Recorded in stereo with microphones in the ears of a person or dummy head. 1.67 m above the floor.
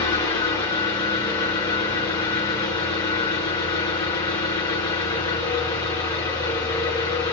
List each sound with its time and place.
0.0 s an engine running: 20° left (ahead or behind), 0.9 m